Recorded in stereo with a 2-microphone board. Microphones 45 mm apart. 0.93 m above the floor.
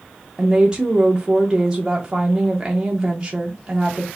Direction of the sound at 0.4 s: 20° right (ahead or behind).